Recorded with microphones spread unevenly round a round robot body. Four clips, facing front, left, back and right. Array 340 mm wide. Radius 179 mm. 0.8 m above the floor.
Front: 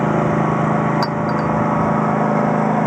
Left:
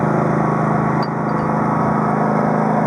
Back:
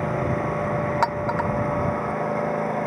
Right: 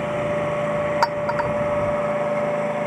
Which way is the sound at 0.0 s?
40° left.